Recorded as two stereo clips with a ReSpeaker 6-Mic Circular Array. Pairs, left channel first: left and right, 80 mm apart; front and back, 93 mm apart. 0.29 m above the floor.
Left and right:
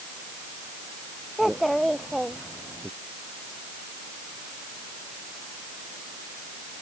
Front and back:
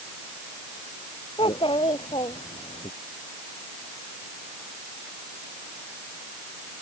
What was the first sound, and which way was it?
A child speaking, straight ahead.